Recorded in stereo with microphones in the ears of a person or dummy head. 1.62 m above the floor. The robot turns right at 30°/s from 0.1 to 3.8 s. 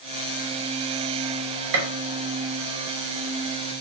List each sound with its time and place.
1.7 s a gunshot: 70° right (ahead or behind), 0.8 m; by 1.9 s 65° right (ahead or behind), 0.8 m